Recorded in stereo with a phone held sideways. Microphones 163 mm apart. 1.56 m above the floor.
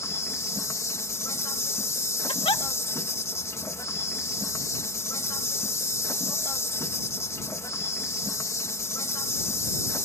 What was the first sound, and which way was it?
An insect, 20° left (ahead or behind).